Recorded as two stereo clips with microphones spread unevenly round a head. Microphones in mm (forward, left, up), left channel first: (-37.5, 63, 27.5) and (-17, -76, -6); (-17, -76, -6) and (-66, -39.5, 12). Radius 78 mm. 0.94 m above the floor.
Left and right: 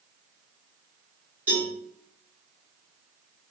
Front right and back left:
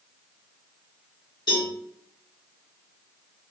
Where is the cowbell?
5° right, 1.6 m.